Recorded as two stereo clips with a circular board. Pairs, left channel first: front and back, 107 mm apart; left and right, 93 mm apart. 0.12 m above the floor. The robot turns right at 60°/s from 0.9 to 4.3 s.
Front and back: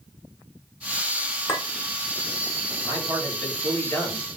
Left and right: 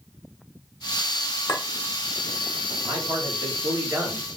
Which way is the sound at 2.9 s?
120° right.